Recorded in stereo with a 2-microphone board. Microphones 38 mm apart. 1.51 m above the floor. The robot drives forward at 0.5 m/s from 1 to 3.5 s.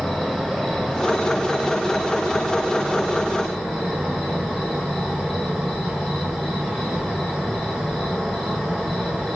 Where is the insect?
5° left (ahead or behind), 2 m; by 9.4 s centre (ahead or behind), 3 m.